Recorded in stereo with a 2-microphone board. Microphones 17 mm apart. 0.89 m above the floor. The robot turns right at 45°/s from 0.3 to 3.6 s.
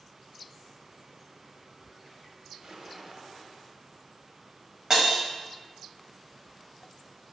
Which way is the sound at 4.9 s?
40° right (ahead or behind).